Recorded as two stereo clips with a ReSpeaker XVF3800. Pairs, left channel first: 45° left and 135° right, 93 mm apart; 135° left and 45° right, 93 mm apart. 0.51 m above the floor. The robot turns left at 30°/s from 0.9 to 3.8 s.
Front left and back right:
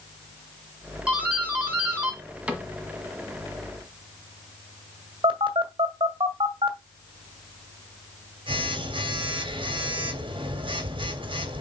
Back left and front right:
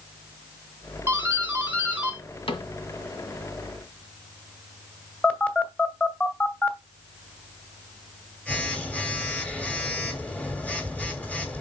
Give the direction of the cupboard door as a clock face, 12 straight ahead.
7 o'clock.